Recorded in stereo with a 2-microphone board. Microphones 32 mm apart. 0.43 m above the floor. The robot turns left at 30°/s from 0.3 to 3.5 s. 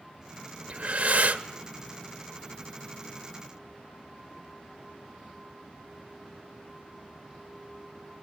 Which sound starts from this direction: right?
Breathing, at 0.7 s.